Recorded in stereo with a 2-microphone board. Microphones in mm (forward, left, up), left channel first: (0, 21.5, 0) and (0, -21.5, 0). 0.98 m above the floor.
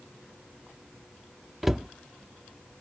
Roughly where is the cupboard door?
Centre.